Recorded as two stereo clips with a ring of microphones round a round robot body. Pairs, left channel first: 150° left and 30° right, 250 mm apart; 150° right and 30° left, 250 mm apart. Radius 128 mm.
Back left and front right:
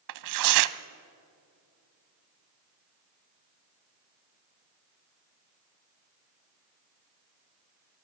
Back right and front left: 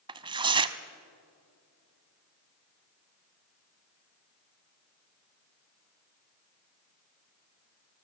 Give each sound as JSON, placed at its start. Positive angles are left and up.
{"t": 0.1, "sound": "tearing paper", "azimuth_deg": -40, "distance_m": 0.7}